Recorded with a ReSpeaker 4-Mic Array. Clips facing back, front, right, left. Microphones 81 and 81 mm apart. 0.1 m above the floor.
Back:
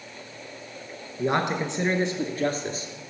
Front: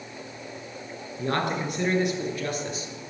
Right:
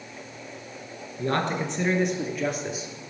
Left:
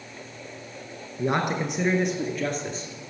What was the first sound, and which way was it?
A man speaking, 130° left.